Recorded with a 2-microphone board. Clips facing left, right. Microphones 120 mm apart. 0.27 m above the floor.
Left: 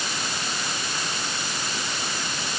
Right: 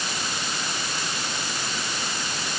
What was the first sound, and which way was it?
Only background noise.